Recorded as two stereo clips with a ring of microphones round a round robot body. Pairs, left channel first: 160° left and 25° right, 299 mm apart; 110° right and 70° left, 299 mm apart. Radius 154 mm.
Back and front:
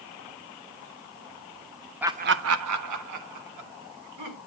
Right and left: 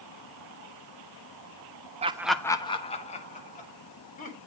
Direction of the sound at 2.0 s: 55° left.